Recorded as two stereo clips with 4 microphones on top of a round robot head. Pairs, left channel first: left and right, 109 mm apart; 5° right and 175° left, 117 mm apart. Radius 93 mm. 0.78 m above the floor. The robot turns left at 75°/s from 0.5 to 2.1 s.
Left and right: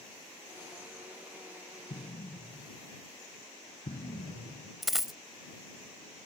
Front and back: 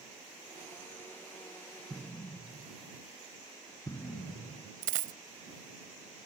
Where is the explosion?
80° left; by 4.7 s 65° left.